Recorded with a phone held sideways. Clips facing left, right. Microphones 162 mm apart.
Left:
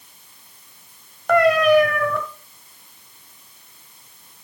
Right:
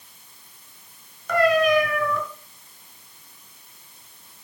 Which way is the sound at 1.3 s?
60° left (ahead or behind).